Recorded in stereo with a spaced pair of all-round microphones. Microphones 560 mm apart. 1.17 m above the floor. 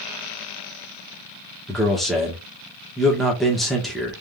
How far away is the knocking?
I don't hear knocking.